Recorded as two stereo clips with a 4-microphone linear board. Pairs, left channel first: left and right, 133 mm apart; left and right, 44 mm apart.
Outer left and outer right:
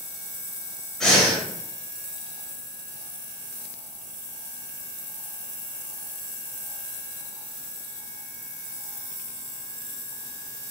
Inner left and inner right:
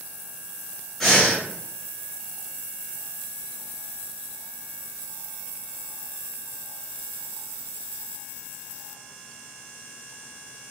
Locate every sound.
1.0 s breathing: 5° left (ahead or behind), 1.4 m